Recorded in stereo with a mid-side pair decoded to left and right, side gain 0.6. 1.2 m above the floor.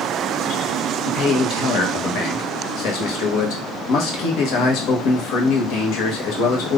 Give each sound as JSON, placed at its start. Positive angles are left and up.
{"t": 1.1, "sound": "a man speaking", "azimuth_deg": 65, "distance_m": 1.0}